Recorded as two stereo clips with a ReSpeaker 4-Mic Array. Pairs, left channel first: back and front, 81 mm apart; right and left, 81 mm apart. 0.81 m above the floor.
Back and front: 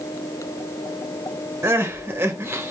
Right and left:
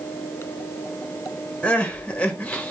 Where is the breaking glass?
No breaking glass in this recording.